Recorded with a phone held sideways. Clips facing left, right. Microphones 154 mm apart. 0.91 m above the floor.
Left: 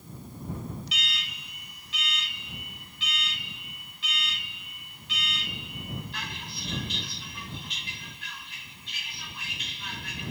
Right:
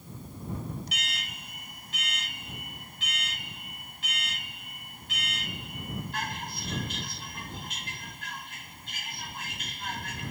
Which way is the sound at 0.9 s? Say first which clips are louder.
Even; 50° right (ahead or behind).